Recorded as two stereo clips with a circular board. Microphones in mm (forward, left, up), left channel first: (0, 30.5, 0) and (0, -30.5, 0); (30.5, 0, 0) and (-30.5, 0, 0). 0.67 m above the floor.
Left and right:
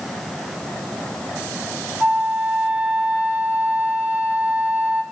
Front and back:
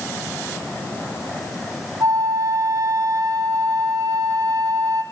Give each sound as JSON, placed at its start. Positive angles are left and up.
{"t": 2.0, "sound": "a flute", "azimuth_deg": -160, "distance_m": 1.7}